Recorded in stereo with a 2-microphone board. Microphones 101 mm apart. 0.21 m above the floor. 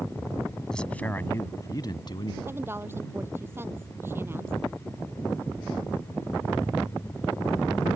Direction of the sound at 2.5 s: 25° right (ahead or behind).